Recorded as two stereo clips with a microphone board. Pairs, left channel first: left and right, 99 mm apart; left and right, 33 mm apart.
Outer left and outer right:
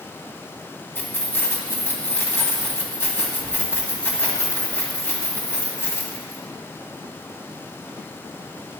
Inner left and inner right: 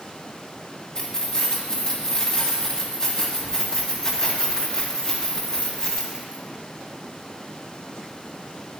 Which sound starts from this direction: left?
Keys jangling, at 0.9 s.